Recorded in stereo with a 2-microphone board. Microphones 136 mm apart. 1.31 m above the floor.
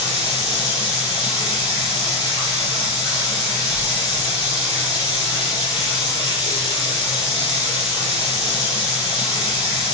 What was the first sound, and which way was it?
Running water, 35° left (ahead or behind).